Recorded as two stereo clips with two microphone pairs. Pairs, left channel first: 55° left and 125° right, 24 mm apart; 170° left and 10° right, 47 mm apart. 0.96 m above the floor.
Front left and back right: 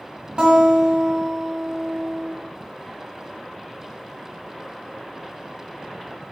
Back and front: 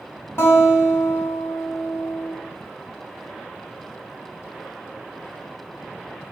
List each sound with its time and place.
0.4 s a guitar: 170° right, 1.4 m